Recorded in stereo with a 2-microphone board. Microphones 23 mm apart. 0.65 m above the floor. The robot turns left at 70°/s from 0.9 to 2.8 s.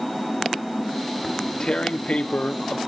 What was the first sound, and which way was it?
Tearing paper, 160° left.